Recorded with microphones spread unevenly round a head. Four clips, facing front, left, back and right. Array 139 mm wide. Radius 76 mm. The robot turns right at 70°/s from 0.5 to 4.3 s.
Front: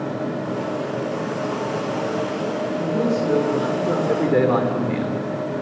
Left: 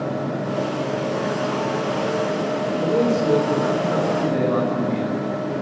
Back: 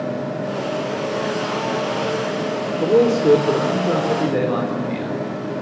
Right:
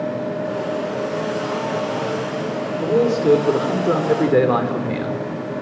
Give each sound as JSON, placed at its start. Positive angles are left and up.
{"t": 2.8, "sound": "a man speaking", "azimuth_deg": 180, "distance_m": 3.5}